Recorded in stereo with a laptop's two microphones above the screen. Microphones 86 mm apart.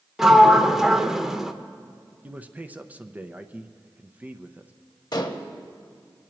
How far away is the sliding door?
About 0.7 m.